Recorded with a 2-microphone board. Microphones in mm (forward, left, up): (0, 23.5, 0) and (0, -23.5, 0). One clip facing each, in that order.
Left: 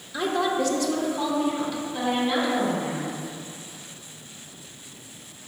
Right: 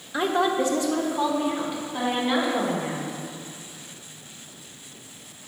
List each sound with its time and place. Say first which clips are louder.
0.1 s a woman speaking: right 2 dB; 25° right (ahead or behind), 0.9 m; by 3.1 s 20° right (ahead or behind), 3 m